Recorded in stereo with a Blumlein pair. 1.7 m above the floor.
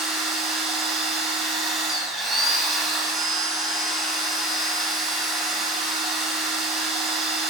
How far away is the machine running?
About 0.9 m.